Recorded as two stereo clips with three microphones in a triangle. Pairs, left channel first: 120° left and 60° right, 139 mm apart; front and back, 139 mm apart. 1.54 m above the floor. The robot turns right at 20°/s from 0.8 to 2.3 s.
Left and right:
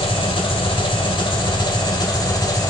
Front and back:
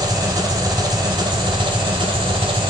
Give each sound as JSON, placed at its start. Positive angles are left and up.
{"t": 0.0, "sound": "an engine running", "azimuth_deg": 135, "distance_m": 1.6}